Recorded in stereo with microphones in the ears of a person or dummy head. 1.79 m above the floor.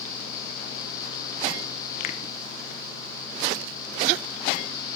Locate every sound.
2.0 s a finger snap: 50° left (ahead or behind), 0.9 m